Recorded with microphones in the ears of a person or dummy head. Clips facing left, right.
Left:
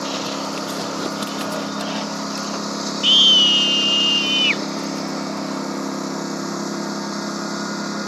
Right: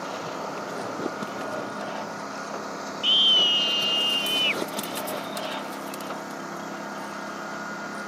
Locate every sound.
0.0 s a lawn mower: 75° left (ahead or behind)
3.0 s a scream: 35° left (ahead or behind)